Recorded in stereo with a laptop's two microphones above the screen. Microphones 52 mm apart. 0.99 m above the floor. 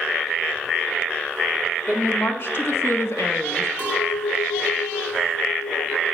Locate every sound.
1.9 s a woman speaking: 45° left (ahead or behind), 1.7 m; by 3.7 s 60° left (ahead or behind), 0.7 m
3.8 s a clink: 20° right (ahead or behind), 2.5 m